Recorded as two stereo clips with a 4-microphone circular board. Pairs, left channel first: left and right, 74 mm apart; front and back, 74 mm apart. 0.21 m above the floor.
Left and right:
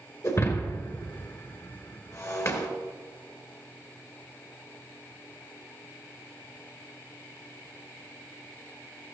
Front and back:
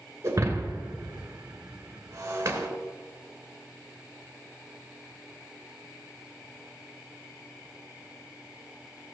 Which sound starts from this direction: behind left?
Breaking glass, at 0.2 s.